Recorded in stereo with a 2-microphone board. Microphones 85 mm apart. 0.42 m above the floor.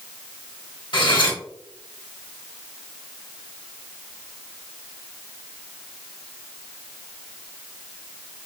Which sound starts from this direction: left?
Cutlery clinking, at 0.9 s.